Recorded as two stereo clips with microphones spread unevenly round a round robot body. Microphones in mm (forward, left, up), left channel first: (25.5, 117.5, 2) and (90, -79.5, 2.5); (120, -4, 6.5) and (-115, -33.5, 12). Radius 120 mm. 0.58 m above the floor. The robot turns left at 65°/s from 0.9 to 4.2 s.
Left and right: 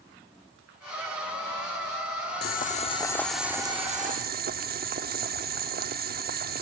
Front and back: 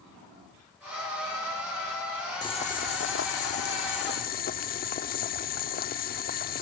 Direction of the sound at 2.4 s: 80° left.